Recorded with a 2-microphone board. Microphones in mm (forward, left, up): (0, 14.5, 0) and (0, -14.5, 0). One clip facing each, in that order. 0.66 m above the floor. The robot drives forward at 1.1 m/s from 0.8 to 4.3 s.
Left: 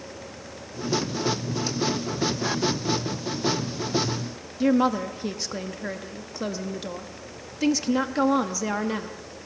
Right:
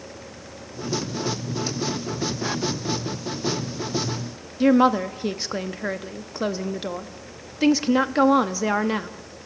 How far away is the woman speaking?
About 0.7 m.